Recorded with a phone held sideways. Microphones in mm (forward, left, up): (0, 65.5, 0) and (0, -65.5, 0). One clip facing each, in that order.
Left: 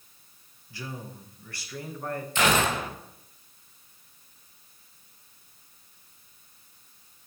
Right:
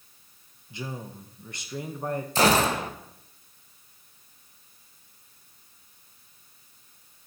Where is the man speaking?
20° right (ahead or behind), 0.9 m.